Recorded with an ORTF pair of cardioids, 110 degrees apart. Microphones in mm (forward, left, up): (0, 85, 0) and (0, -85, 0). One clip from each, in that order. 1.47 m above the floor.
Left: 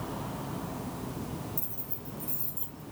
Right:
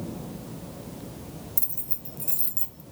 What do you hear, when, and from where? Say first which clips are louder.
1.6 s keys jangling: right 2 dB; 50° right, 1.0 m